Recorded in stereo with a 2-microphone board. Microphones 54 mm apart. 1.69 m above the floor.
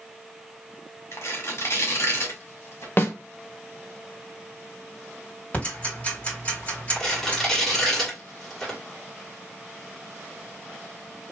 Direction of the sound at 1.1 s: 60° left (ahead or behind).